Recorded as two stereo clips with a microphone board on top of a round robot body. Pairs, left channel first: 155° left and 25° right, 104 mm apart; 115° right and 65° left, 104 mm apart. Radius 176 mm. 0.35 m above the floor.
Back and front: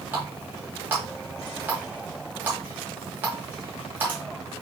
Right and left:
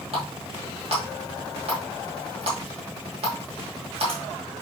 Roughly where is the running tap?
Ahead left.